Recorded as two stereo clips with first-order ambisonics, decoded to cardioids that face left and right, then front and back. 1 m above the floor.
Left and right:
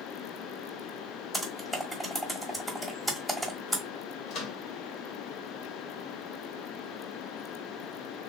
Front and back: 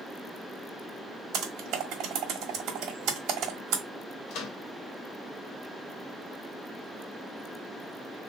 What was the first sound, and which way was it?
Typing on a keyboard, 175° left.